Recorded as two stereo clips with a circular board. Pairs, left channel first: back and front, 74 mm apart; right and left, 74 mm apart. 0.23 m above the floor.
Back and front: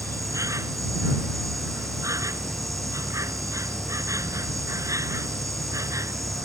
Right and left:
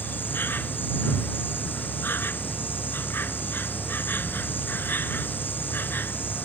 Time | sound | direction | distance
0.0 | an insect | 35° right | ?